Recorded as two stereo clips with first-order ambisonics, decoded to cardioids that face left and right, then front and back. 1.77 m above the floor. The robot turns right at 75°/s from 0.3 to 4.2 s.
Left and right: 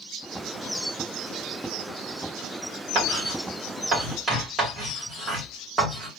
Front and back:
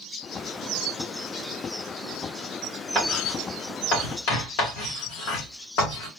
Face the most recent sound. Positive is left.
turn(degrees=-20)